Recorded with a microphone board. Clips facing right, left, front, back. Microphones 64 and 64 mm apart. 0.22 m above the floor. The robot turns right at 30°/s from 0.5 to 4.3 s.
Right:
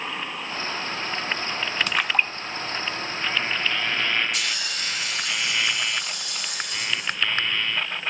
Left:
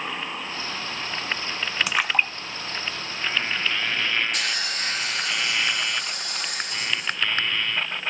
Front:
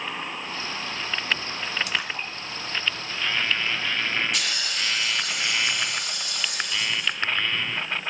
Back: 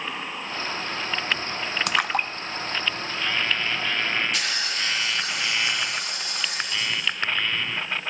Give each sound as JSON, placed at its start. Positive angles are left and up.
{"t": 1.9, "sound": "a splash", "azimuth_deg": 170, "distance_m": 0.5}
{"t": 4.3, "sound": "a hiss", "azimuth_deg": 135, "distance_m": 3.5}